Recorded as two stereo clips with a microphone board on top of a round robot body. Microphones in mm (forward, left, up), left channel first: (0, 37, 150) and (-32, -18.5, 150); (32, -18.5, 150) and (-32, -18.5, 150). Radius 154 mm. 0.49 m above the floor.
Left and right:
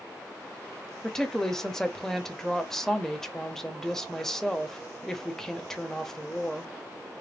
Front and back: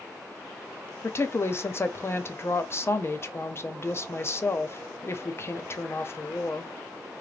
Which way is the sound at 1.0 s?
20° right.